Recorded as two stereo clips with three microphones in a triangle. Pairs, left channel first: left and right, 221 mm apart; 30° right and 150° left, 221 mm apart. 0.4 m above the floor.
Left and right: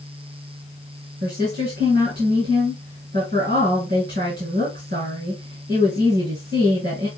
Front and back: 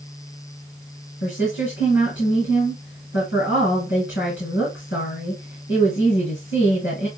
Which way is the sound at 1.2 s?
55° right.